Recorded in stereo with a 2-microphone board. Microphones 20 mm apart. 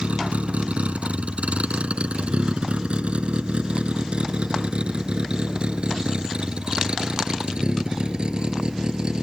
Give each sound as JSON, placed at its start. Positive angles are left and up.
{"t": 0.0, "sound": "a vehicle", "side_deg": -80}